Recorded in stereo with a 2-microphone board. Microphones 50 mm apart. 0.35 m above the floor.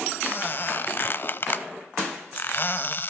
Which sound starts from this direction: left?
A squeak, at 0.2 s.